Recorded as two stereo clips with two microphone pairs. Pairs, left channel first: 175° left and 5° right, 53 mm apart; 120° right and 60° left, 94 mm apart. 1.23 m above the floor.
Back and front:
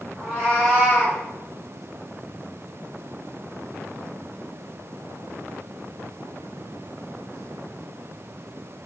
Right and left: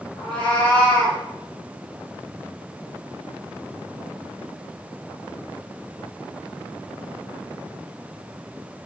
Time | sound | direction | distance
0.2 | a cat meowing | 105° right | 1.3 m